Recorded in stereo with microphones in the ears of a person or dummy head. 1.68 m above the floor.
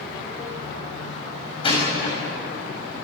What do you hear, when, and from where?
1.6 s a door slam: 35° left (ahead or behind), 7 m